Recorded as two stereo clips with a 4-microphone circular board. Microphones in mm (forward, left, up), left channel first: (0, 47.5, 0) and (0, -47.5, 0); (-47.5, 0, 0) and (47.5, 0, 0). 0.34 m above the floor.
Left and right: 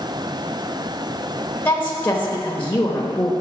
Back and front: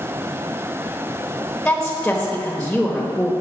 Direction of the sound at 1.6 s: 115° left.